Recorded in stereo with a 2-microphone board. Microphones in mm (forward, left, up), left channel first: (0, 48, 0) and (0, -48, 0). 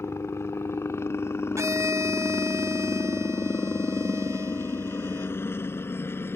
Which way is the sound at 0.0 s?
25° left (ahead or behind).